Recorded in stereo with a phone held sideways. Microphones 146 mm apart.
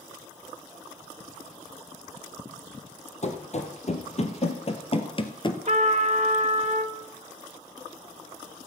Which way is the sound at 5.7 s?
50° right (ahead or behind).